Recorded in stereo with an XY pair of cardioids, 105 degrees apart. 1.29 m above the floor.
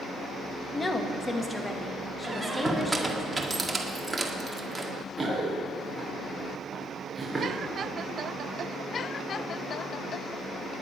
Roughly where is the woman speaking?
Ahead left.